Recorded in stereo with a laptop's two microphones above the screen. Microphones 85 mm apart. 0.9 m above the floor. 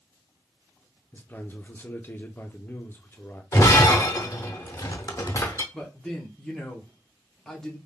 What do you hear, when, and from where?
1.1 s a man speaking: 20° left (ahead or behind), 0.6 m
3.5 s breaking glass: 35° left (ahead or behind), 0.6 m
5.7 s a man speaking: 5° left (ahead or behind), 0.9 m